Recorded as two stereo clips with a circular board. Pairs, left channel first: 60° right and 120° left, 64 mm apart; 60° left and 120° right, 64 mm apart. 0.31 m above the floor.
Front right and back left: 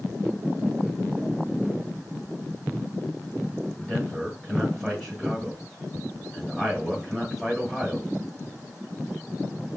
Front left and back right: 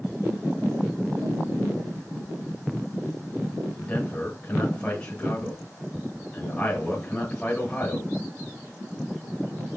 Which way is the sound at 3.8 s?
30° left.